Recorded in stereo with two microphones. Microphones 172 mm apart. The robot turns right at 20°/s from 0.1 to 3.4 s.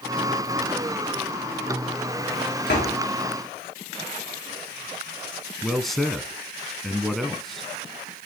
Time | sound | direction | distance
2.7 | a door slam | 85° left | 9.5 m
5.6 | a man speaking | centre (ahead or behind) | 1.1 m